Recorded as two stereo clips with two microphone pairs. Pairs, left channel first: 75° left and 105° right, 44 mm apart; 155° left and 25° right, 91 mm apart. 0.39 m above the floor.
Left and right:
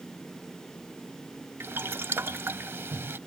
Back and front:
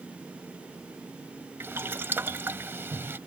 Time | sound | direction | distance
1.6 | boiling | 90° right | ?